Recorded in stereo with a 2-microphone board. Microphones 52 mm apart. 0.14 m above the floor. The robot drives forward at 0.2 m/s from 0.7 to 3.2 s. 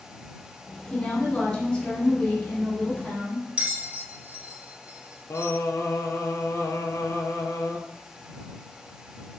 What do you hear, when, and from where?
0.9 s a woman speaking: 15° left (ahead or behind), 1.1 m
3.6 s a bell: 25° right (ahead or behind), 0.7 m
5.3 s singing: 65° left (ahead or behind), 0.5 m